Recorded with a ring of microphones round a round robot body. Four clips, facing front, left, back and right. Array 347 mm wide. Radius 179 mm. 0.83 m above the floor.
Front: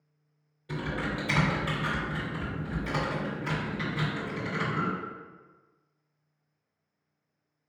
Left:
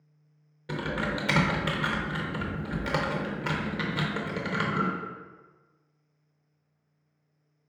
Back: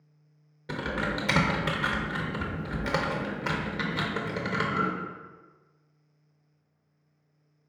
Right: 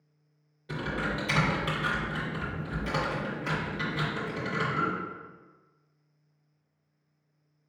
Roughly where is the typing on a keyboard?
Behind left.